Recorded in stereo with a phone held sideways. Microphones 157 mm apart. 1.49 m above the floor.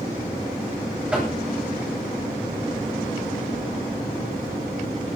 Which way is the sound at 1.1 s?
5° right (ahead or behind).